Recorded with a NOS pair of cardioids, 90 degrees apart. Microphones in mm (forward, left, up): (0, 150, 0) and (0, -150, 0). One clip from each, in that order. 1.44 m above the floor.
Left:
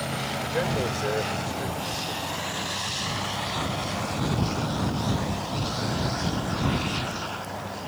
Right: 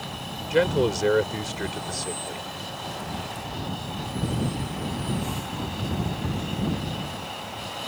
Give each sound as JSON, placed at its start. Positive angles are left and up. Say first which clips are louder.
{"t": 0.5, "sound": "a man speaking", "louder": "right 8 dB", "azimuth_deg": -55}